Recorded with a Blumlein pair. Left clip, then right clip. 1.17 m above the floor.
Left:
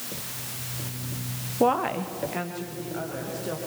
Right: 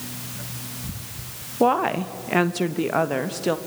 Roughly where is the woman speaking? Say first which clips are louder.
Right 3 dB; ahead.